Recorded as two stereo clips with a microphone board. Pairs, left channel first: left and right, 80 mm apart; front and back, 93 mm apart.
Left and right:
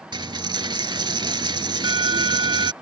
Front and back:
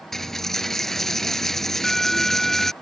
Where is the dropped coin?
85° right.